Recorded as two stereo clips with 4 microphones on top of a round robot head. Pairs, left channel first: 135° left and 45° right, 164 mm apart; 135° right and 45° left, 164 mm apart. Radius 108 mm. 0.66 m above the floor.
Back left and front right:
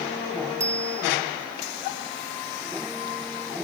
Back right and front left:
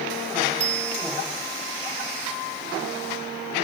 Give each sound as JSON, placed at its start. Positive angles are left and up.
{"t": 0.6, "sound": "a bicycle bell", "azimuth_deg": 30}